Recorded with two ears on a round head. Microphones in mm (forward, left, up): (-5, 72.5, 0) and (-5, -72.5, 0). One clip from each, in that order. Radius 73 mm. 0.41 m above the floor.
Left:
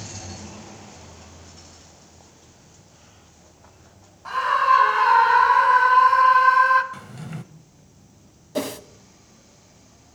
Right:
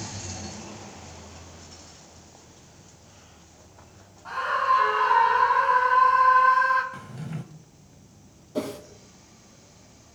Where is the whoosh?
45° left (ahead or behind), 0.6 m.